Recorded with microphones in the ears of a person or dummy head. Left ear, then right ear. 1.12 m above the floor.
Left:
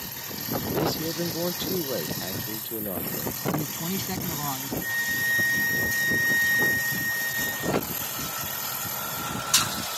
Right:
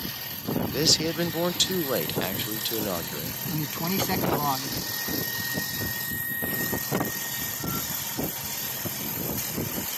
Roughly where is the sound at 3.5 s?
Right.